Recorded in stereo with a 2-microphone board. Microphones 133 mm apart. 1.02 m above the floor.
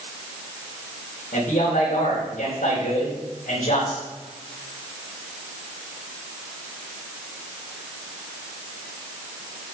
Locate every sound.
1.3 s a man speaking: 75° left (ahead or behind), 4 m